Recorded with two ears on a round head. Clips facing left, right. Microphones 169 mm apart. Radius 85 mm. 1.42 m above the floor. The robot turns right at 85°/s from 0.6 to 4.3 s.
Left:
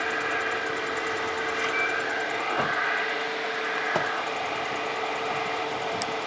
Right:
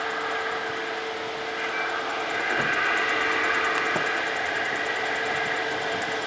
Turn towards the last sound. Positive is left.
turn(degrees=-15)